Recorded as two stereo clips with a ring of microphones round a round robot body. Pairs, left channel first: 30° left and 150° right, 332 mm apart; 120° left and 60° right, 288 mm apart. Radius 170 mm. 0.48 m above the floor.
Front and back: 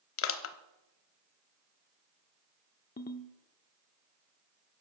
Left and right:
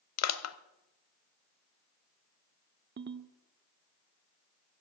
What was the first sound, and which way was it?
Crushing, 85° left.